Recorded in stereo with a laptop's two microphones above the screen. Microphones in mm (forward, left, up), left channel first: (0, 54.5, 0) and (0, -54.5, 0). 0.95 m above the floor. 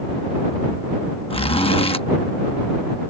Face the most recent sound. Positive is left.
turn(degrees=60)  # may be behind; listen again after turning